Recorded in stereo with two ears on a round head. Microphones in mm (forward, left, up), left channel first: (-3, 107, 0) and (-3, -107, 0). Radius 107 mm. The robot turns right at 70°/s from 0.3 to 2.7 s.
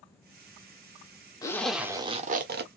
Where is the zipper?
160° left, 1.2 m; by 2.7 s 110° right, 1.2 m.